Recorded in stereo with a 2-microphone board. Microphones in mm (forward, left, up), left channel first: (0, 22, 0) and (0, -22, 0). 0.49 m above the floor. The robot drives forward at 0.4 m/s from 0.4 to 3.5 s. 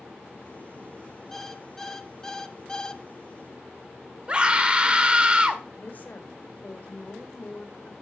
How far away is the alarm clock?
About 1.1 m.